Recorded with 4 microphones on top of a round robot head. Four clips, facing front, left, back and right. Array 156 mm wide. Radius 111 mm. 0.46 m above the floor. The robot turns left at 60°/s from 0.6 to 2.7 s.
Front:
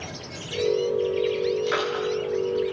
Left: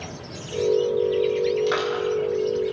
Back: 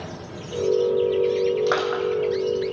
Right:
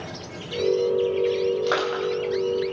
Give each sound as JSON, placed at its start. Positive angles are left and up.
{"t": 1.7, "sound": "crushing", "azimuth_deg": -145, "distance_m": 3.5}